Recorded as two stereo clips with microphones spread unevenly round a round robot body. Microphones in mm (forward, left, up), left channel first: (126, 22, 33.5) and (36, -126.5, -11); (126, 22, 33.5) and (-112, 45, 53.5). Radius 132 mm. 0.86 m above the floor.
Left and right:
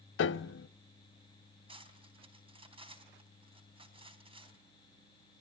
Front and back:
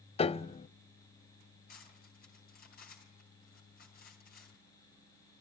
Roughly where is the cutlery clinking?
Ahead right.